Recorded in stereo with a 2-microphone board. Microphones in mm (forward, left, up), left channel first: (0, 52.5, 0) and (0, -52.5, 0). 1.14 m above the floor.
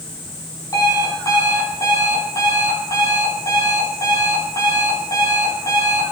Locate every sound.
0.7 s an alarm clock: 35° left (ahead or behind), 5.5 m